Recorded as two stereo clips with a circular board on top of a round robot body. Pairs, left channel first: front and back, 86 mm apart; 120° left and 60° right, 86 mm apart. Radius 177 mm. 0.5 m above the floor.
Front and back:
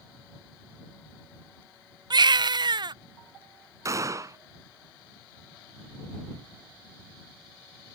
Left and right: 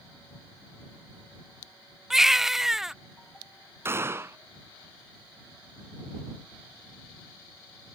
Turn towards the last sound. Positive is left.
turn(degrees=-125)